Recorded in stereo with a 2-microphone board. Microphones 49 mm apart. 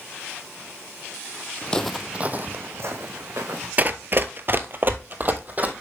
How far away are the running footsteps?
About 0.6 m.